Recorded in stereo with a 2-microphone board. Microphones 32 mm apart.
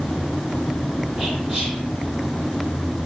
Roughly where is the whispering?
Centre.